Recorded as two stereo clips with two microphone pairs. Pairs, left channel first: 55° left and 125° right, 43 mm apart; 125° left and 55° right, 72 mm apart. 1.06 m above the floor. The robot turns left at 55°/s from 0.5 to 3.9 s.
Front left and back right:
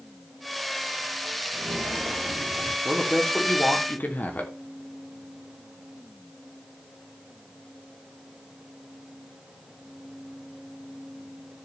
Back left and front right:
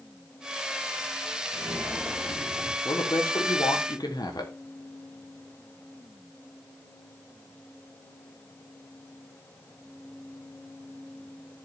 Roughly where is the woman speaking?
Behind.